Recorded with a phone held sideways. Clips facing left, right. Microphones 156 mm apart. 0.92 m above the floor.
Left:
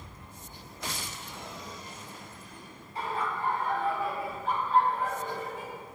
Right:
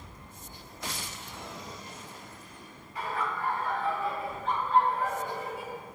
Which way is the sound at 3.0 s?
30° left (ahead or behind).